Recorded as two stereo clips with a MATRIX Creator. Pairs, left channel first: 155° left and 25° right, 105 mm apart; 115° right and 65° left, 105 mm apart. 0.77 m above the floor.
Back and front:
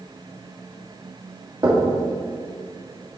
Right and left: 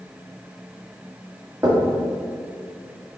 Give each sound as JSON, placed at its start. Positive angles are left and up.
{"t": 1.6, "sound": "knocking", "azimuth_deg": 15, "distance_m": 1.4}